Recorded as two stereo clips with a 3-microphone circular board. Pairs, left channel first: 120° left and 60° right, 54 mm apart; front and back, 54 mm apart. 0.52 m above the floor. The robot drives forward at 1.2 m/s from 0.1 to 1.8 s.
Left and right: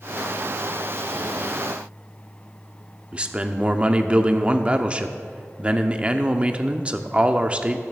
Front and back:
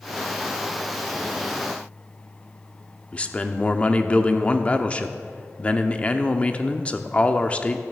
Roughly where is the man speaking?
Ahead right.